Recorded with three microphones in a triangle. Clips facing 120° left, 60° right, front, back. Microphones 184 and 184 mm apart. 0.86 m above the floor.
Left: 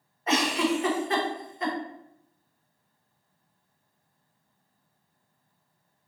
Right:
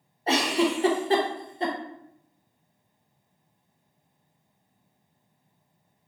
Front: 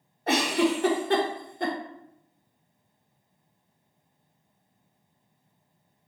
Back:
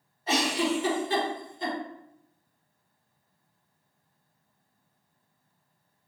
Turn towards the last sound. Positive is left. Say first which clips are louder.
# right 1 dB, front 3 dB
turn(degrees=-5)